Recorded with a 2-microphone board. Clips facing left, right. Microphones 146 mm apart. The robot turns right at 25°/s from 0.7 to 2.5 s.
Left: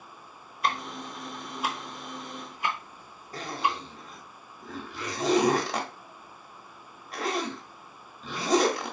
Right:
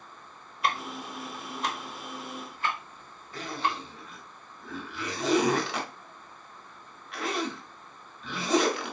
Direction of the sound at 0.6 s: Centre (ahead or behind).